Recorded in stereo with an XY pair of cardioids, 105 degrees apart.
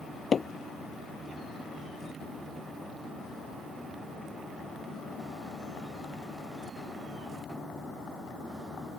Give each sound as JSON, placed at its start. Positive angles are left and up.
{"t": 0.3, "sound": "hammering", "azimuth_deg": 35}